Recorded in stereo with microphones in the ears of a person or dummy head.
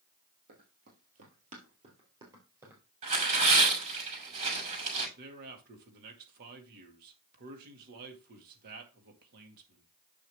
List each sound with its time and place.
0.5 s running footsteps: 50° right (ahead or behind), 2.5 m; by 2.8 s 5° right (ahead or behind), 2 m
3.0 s tearing paper: 45° right (ahead or behind), 6 m
5.2 s a man speaking: 55° right (ahead or behind), 2.0 m